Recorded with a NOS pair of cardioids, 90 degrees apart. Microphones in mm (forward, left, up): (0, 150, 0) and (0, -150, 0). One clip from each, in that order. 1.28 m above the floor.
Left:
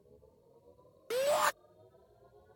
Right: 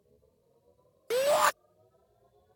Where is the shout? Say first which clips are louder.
Right 5 dB; 20° right.